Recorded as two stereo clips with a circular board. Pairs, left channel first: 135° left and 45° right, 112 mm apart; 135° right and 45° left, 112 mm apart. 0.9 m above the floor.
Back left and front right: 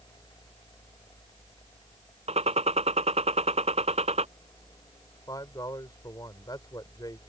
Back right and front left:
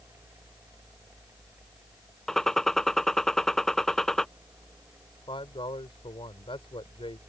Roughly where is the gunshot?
Ahead right.